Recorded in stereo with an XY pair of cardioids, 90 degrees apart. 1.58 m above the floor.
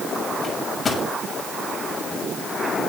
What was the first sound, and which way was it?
A microwave, 40° left.